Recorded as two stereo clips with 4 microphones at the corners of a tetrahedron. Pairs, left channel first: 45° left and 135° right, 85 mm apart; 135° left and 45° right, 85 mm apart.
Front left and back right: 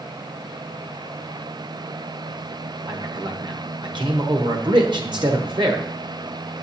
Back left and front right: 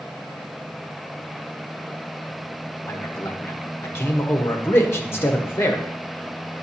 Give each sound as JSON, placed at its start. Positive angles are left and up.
{"t": 2.9, "sound": "a man speaking", "azimuth_deg": -165, "distance_m": 1.2}